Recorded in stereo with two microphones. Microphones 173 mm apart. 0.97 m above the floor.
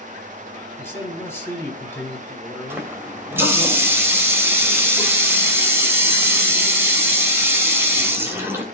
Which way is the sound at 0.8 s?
15° left (ahead or behind).